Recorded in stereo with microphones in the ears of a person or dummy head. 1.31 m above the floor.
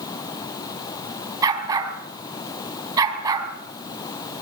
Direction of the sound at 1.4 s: 20° right (ahead or behind).